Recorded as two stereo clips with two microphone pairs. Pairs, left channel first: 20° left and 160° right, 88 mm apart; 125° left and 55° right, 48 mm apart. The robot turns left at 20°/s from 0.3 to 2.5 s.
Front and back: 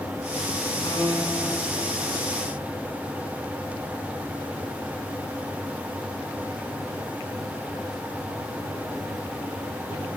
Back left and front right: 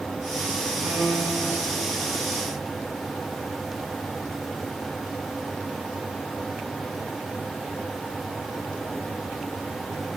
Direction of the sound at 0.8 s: 20° right.